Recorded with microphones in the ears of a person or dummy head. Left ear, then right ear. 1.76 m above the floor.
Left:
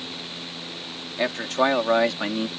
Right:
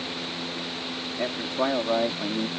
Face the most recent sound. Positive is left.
turn(degrees=60)  # may be behind; listen again after turning